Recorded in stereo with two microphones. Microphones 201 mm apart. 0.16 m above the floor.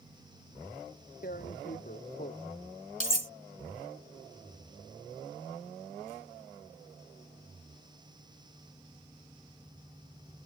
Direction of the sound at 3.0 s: 45° left (ahead or behind).